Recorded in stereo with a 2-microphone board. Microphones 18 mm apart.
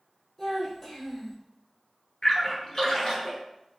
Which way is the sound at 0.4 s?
20° left (ahead or behind).